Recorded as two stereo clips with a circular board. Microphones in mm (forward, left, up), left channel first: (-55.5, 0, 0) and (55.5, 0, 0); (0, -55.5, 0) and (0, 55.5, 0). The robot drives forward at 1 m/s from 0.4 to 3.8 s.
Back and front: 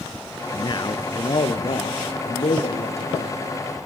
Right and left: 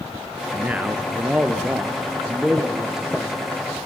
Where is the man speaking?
155° left, 1.5 m; by 3.4 s 175° left, 4 m.